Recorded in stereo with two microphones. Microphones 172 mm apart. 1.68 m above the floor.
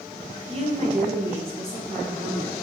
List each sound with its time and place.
0.5 s a woman speaking: 35° right (ahead or behind), 1.4 m; by 2.5 s 80° right, 3 m